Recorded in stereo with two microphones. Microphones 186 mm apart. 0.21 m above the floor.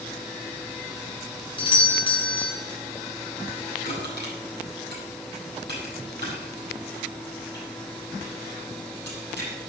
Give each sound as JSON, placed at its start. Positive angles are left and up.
{"t": 1.6, "sound": "a doorbell", "side_deg": 25, "distance_m": 1.8}
{"t": 3.8, "sound": "crushing", "side_deg": 70, "distance_m": 8.0}